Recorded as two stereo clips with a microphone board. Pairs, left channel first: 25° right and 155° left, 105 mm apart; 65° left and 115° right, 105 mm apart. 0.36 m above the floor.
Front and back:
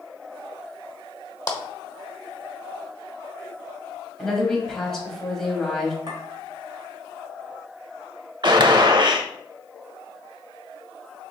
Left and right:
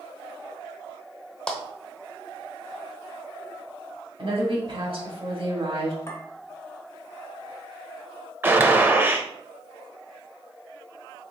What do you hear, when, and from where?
1.5 s a clap: 10° right, 1.0 m
4.2 s a woman speaking: 110° right, 1.7 m
6.1 s a clink: 125° left, 1.6 m
8.4 s a gunshot: 175° right, 0.6 m